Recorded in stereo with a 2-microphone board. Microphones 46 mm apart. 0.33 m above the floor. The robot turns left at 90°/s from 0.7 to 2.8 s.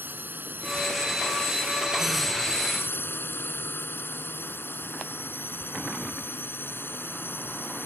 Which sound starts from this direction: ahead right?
A drone, at 0.0 s.